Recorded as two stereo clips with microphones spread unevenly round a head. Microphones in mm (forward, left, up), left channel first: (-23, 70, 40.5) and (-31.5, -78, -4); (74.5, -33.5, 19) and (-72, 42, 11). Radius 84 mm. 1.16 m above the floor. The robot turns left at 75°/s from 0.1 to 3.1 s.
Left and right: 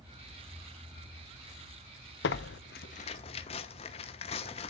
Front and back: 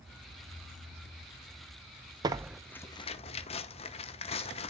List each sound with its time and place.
2.2 s tearing paper: 90° left, 0.9 m; by 4.7 s 25° left, 0.9 m